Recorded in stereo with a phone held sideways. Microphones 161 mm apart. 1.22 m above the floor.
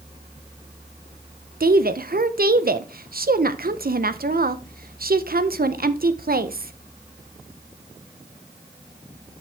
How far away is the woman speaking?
About 0.6 m.